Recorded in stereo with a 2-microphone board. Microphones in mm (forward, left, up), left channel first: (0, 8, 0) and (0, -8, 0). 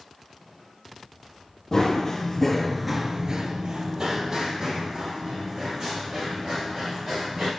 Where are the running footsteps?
20° left (ahead or behind), 2 m; by 7.5 s 40° right (ahead or behind), 7 m.